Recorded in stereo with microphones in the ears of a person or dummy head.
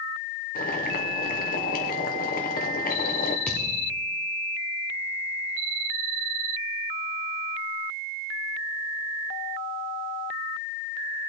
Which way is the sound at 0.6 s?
45° left (ahead or behind).